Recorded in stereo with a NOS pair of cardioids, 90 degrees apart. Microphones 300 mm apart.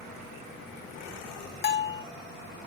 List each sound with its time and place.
1.6 s a bell: 35° left, 0.9 m